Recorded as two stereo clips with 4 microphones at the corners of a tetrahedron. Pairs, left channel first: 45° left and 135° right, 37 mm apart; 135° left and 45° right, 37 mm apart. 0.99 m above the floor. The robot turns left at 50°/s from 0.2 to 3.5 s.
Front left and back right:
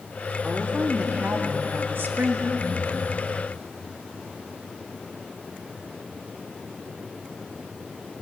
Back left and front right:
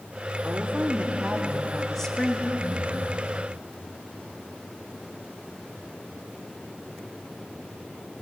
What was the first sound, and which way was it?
A woman speaking, 70° right.